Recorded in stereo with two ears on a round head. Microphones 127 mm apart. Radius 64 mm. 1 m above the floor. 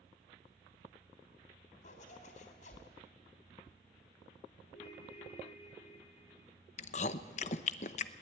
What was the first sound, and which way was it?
A zipper, 55° left (ahead or behind).